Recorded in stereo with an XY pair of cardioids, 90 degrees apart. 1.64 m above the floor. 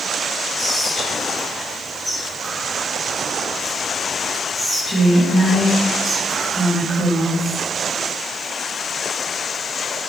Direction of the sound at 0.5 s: 10° left.